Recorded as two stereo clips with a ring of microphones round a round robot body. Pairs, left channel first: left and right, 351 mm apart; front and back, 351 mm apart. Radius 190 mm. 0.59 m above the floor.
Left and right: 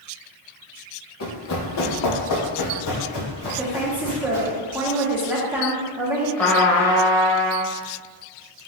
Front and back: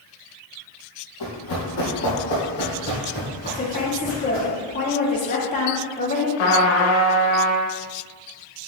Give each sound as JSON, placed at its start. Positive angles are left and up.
{"t": 1.2, "sound": "running footsteps", "azimuth_deg": 45, "distance_m": 1.4}
{"t": 3.5, "sound": "a woman speaking", "azimuth_deg": -15, "distance_m": 0.7}
{"t": 6.4, "sound": "a trumpet", "azimuth_deg": 5, "distance_m": 0.9}